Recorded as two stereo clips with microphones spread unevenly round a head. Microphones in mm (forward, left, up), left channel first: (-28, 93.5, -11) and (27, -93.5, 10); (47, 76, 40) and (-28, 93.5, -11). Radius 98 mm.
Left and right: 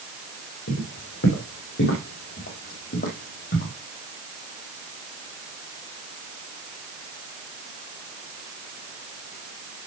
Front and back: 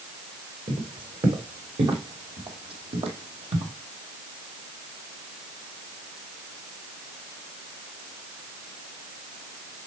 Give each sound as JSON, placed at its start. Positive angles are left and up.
{"t": 0.7, "sound": "footsteps", "azimuth_deg": 130, "distance_m": 4.0}